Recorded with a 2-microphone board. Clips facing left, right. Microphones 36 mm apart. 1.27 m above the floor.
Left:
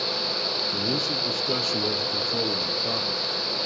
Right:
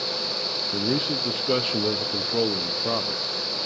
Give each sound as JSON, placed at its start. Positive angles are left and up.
{"t": 0.7, "sound": "a man speaking", "side_deg": -30, "distance_m": 0.6}